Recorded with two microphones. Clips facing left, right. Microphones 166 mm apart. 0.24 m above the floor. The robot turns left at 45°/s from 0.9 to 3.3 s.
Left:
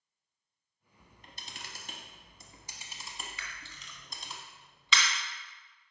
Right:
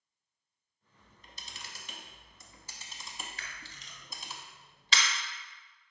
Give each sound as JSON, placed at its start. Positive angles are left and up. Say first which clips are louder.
{"t": 1.0, "sound": "a camera shutter", "louder": "left 2 dB", "side_deg": 60, "distance_m": 0.7}
{"t": 3.4, "sound": "a camera shutter", "louder": "even", "side_deg": -40, "distance_m": 0.9}